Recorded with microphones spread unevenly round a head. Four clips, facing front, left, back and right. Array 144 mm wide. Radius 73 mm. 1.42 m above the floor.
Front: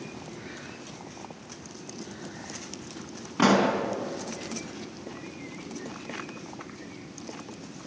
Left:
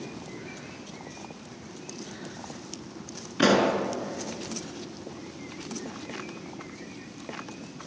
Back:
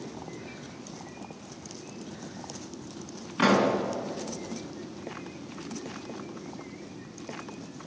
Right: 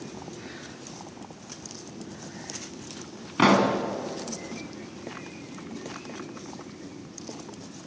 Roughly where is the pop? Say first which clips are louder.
Right 1 dB, front 1 dB; ahead right.